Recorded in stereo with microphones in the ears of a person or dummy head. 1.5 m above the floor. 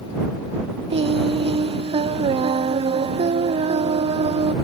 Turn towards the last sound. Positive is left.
turn(degrees=-30)  # may be behind; listen again after turning